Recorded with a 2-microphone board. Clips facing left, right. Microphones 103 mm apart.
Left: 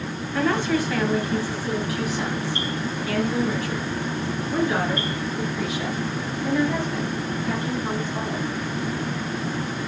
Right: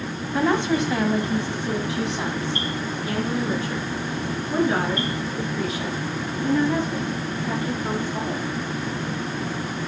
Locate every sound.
0.3 s a woman speaking: 20° right (ahead or behind), 1.1 m